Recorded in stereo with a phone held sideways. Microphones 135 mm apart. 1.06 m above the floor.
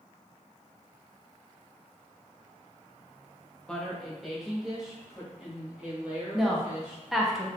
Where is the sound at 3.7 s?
5° left (ahead or behind), 0.8 m; by 7.3 s 10° right (ahead or behind), 2.5 m.